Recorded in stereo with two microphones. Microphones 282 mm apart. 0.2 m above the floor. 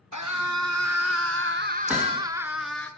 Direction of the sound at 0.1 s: 70° right (ahead or behind).